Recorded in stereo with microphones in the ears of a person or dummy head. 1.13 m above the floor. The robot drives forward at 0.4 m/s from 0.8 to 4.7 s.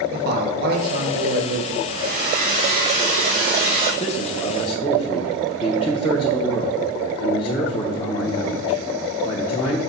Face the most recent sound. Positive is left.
turn(degrees=30)  # may be behind; listen again after turning